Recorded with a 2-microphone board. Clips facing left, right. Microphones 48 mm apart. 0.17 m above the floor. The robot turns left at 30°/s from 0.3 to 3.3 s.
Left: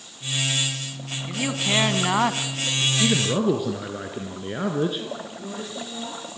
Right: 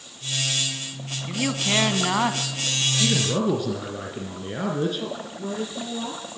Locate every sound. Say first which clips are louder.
1.3 s a man speaking: even; 5° right (ahead or behind), 1.5 m; by 2.9 s 15° left (ahead or behind), 1.5 m
3.0 s a man speaking: left 1 dB; 20° left (ahead or behind), 3 m; by 5.0 s 10° left (ahead or behind), 3 m
5.0 s a woman speaking: right 2 dB; 20° right (ahead or behind), 5.5 m